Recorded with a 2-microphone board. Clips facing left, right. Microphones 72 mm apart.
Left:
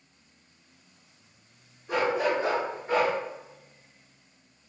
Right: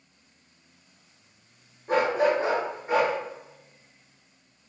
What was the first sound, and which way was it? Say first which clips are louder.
A dog barking: right 3 dB; 50° right (ahead or behind).